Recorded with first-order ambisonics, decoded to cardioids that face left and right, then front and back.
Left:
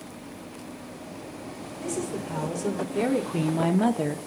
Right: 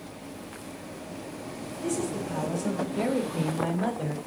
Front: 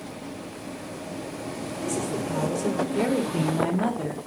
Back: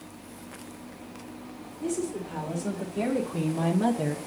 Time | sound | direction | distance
1.8 | a woman speaking | 35° left | 3.5 m